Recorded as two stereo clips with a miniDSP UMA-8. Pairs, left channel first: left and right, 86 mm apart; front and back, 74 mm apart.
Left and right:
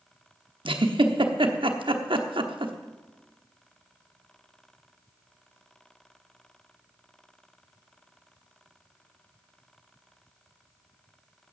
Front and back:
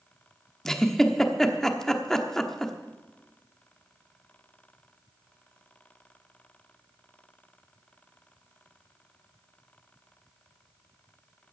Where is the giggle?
85° right, 1.2 m.